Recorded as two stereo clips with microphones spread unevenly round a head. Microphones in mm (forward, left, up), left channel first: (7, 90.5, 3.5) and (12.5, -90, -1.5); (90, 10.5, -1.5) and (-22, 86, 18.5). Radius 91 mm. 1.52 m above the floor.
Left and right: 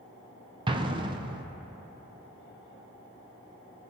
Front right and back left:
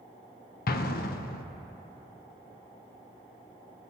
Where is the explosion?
25° right, 0.8 m.